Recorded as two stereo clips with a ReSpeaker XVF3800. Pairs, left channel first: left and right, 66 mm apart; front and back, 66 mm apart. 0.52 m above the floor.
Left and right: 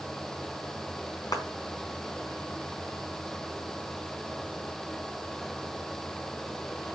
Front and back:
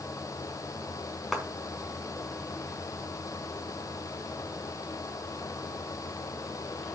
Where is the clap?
90° left, 3.5 m.